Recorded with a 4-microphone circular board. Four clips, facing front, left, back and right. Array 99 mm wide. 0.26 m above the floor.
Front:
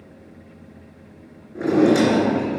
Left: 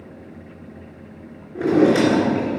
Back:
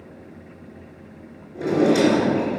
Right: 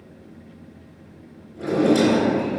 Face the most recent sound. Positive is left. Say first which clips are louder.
# left 3 dB, front 2 dB
turn(degrees=60)